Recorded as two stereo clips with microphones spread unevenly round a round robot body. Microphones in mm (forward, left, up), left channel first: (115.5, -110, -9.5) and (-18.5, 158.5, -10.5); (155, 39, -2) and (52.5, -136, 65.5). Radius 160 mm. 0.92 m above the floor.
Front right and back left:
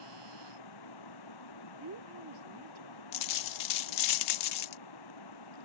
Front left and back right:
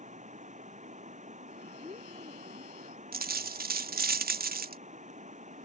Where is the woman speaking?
165° left.